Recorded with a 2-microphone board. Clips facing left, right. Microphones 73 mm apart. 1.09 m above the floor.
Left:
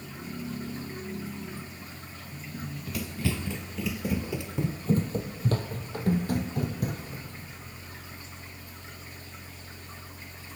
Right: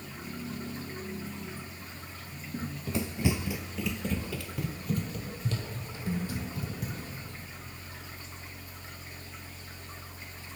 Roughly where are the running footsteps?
Right.